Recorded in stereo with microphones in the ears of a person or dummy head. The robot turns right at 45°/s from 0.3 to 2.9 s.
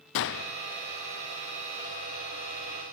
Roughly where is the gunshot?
Left.